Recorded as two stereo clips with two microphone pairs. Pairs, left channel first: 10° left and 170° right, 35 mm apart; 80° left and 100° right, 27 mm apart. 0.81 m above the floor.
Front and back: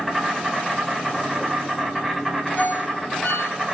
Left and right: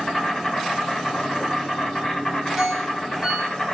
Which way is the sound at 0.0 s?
90° left.